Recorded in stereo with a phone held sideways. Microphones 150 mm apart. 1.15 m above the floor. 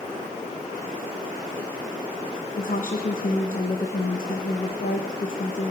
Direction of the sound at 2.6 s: 65° left (ahead or behind).